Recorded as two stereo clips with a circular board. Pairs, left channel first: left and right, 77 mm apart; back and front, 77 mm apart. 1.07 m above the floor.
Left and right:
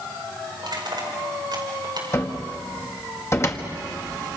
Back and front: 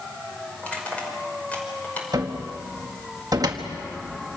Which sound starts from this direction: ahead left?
A cupboard door, at 2.1 s.